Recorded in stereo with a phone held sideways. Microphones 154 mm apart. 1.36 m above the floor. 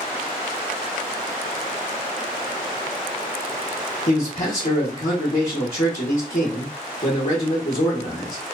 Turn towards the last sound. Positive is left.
turn(degrees=55)  # may be behind; listen again after turning